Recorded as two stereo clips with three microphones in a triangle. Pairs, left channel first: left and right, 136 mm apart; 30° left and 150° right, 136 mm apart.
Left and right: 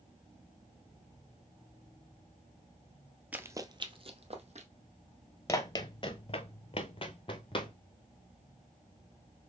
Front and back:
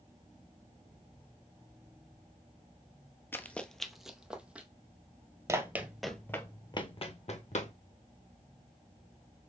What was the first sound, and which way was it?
Running footsteps, 25° right.